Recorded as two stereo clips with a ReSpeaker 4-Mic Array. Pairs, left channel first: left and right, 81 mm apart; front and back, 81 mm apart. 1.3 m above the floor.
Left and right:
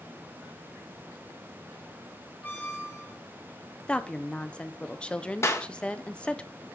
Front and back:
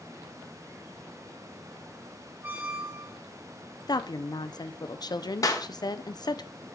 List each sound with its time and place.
2.4 s a squeak: 135° left, 1.1 m
3.9 s a woman speaking: 15° left, 0.5 m
5.4 s a clap: 40° left, 0.8 m